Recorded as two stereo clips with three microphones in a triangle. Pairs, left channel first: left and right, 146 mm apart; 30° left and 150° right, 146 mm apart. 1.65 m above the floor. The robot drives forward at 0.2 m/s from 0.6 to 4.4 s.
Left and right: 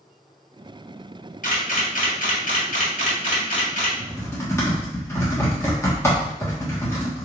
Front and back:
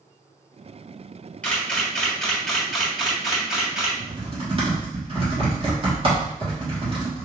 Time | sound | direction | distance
1.4 | a camera shutter | 110° left | 1.4 m
4.0 | typing on a keyboard | 160° left | 1.2 m